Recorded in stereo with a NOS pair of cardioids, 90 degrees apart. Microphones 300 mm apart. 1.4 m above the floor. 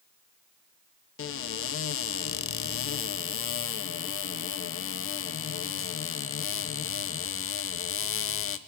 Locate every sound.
1.2 s a cupboard door: 45° left, 0.8 m